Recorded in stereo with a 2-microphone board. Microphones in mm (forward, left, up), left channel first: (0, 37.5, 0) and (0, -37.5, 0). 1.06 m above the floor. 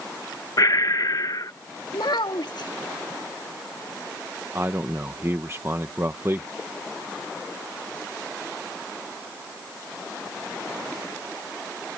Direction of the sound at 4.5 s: 35° right (ahead or behind).